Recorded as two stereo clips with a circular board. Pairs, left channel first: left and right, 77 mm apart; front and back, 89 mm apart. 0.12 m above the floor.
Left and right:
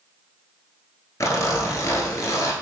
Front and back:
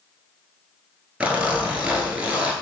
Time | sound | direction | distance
1.2 | a zipper | 110° left | 0.9 m